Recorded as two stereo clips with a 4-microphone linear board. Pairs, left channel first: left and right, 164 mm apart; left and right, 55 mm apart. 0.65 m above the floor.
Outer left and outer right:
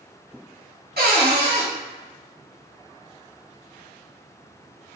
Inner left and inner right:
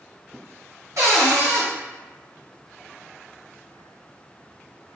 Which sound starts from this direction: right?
A cupboard door, at 1.0 s.